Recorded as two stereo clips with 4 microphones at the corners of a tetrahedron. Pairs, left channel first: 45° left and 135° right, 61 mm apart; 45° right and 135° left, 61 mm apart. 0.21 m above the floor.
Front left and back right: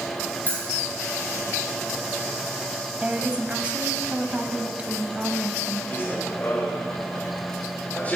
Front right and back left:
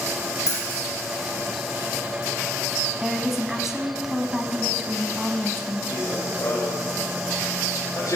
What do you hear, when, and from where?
0.5 s keys jangling: 10° right, 5.5 m
3.0 s a woman speaking: 150° right, 1.3 m
5.9 s running footsteps: 5° right, 5.5 m; by 8.2 s 20° right, 6 m